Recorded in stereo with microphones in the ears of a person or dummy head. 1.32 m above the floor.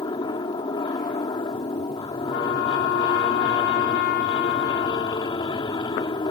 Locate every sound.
0.0 s an aircraft: 25° left (ahead or behind)
2.3 s a trumpet: 55° left (ahead or behind)